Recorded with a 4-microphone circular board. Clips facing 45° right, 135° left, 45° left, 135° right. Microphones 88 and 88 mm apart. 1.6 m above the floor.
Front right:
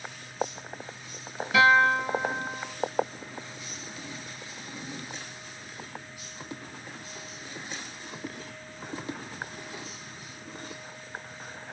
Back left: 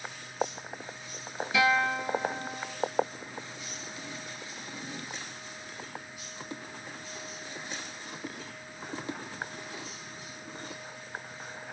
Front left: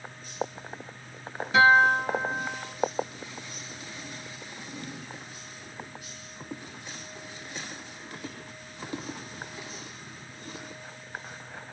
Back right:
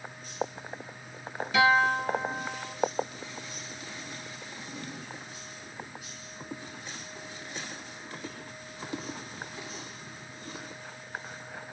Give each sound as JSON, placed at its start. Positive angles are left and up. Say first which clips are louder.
{"t": 1.5, "sound": "a guitar", "louder": "front right 6 dB, front left 4 dB", "azimuth_deg": -10, "distance_m": 2.5}